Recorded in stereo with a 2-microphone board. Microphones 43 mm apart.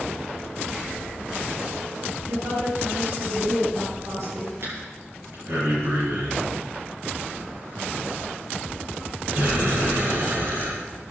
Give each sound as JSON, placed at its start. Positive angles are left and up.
{"t": 2.3, "sound": "a woman speaking", "side_deg": -75, "distance_m": 7.0}
{"t": 4.6, "sound": "breathing", "side_deg": -60, "distance_m": 9.0}